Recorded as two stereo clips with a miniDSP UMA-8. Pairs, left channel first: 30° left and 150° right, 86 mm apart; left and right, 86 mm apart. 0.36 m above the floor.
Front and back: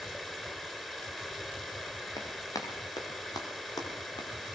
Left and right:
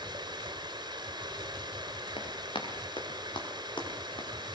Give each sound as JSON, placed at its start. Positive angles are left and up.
{"t": 0.0, "sound": "running water", "azimuth_deg": -55, "distance_m": 3.0}
{"t": 2.2, "sound": "running footsteps", "azimuth_deg": 75, "distance_m": 6.5}